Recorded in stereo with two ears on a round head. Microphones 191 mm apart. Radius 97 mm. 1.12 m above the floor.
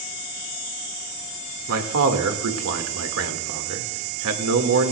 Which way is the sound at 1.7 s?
80° right.